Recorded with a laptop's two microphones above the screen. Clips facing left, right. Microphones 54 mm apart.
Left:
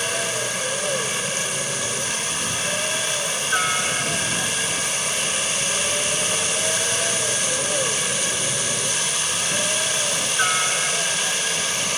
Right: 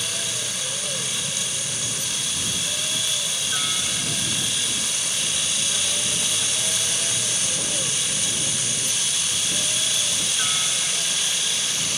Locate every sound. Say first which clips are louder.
0.0 s a helicopter: left 6 dB; 40° left (ahead or behind)